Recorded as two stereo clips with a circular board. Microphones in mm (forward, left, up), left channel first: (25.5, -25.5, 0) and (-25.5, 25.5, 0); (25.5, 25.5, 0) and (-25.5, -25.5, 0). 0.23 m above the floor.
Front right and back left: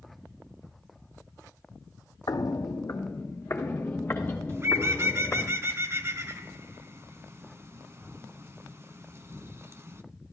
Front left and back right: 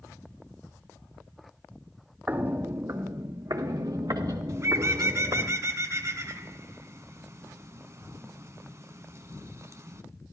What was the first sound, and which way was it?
Footsteps, 70° right.